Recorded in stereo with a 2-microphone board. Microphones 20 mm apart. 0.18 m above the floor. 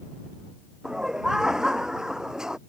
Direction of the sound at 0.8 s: 35° right (ahead or behind).